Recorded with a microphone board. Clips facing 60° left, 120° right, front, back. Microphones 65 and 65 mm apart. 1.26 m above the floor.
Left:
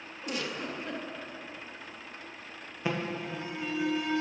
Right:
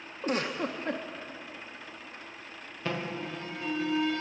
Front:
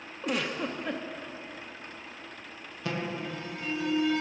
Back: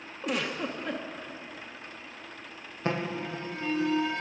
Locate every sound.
0.2 s a giggle: 90° right, 0.8 m
2.9 s an alarm: 135° left, 1.4 m